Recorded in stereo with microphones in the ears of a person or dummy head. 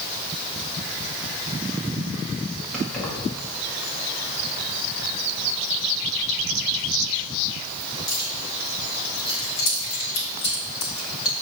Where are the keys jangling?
Centre (ahead or behind), 2 m; by 11.3 s 70° left (ahead or behind), 5 m.